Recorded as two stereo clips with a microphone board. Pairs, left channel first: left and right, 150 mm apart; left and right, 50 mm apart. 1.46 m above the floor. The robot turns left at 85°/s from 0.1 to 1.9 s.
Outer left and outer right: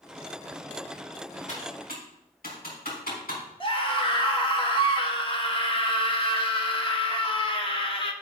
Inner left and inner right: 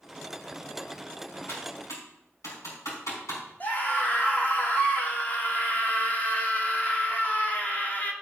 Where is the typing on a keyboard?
50° left (ahead or behind), 5 m; by 3.4 s 80° left, 5 m.